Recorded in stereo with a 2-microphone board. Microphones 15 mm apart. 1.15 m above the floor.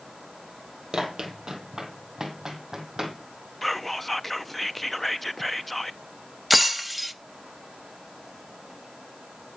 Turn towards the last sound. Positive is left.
turn(degrees=-15)  # may be behind; listen again after turning